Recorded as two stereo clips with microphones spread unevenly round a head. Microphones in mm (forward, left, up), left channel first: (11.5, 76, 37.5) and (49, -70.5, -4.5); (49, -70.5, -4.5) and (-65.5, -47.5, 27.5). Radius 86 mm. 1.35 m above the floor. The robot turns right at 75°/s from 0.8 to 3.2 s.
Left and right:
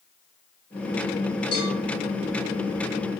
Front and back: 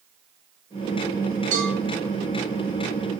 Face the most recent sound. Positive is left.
turn(degrees=-65)